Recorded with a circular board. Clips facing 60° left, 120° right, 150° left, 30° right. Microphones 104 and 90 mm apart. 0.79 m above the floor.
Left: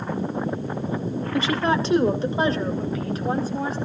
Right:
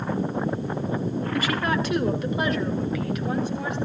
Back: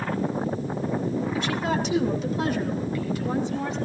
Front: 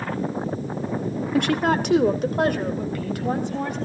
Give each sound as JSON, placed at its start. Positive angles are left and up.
{"t": 1.3, "sound": "a woman speaking", "azimuth_deg": -5, "distance_m": 1.4}